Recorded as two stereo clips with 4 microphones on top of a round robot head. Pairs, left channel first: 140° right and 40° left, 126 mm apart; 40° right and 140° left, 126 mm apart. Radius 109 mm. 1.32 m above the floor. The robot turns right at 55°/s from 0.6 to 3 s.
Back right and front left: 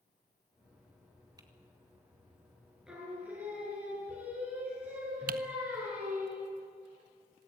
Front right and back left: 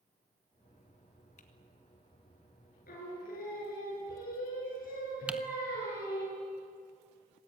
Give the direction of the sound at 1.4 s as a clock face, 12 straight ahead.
1 o'clock.